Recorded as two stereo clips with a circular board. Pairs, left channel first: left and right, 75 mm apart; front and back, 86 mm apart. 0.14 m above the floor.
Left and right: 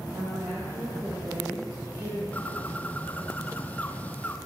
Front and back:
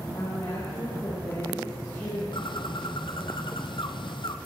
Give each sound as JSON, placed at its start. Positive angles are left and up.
{"t": 0.1, "sound": "a woman speaking", "azimuth_deg": -45, "distance_m": 9.0}
{"t": 2.3, "sound": "a bird", "azimuth_deg": 20, "distance_m": 1.2}